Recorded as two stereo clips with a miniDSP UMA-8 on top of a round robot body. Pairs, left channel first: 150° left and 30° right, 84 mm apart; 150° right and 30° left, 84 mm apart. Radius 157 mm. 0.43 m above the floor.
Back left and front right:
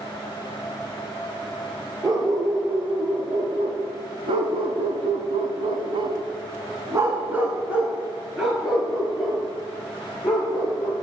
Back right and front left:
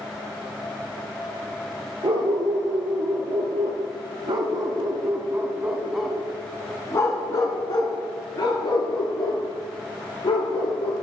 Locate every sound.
2.0 s a dog barking: 15° left, 3 m; by 10.9 s 130° right, 3.5 m